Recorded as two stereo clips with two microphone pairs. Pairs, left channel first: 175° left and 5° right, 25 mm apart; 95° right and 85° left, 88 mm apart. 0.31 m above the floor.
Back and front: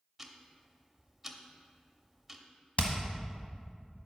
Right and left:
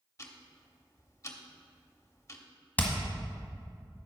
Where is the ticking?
85° right, 0.8 m.